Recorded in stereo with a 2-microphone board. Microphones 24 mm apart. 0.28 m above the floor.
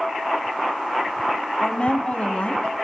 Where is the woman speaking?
55° left (ahead or behind), 1.7 m; by 2.8 s 65° left (ahead or behind), 2 m.